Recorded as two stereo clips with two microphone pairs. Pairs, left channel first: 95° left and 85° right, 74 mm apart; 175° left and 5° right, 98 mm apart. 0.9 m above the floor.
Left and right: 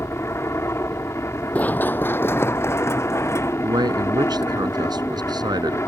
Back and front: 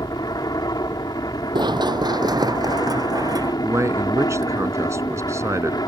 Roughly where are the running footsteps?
Ahead left.